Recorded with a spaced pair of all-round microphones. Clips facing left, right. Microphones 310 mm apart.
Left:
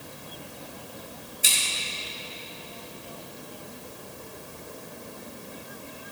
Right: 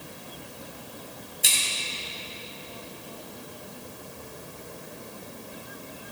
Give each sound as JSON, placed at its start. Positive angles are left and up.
{"t": 1.4, "sound": "scissors", "side_deg": 0, "distance_m": 4.0}